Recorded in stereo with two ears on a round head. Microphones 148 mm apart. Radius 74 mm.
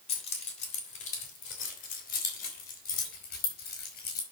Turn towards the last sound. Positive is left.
turn(degrees=65)  # may be behind; listen again after turning